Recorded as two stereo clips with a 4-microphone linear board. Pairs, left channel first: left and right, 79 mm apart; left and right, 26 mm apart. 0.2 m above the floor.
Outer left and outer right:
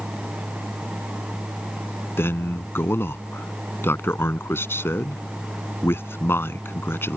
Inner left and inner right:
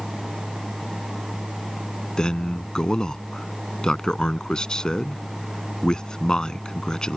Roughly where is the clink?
No clink in this recording.